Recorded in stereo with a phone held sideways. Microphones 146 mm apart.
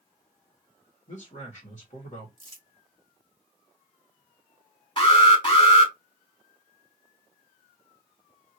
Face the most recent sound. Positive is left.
turn(degrees=35)  # may be behind; listen again after turning